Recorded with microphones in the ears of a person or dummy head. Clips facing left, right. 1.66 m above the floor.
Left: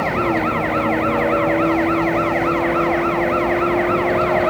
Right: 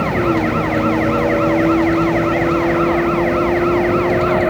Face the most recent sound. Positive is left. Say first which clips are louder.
# right 3 dB
turn(degrees=-20)  # may be behind; listen again after turning